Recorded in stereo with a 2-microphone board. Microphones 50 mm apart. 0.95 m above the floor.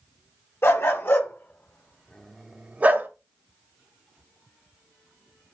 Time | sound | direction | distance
0.6 | a dog barking | 60° left (ahead or behind) | 1.2 m